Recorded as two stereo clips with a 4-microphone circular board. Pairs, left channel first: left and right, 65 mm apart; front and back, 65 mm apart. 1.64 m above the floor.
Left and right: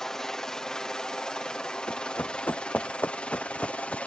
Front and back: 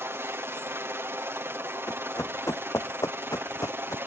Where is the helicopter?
170° left; by 4.1 s 150° left.